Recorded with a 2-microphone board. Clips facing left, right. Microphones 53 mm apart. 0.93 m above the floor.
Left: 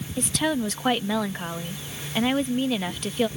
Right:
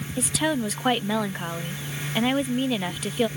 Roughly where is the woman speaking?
Centre.